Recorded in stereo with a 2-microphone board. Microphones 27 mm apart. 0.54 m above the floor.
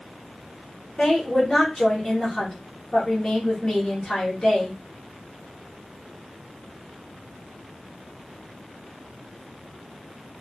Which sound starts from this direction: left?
A woman speaking, at 1.0 s.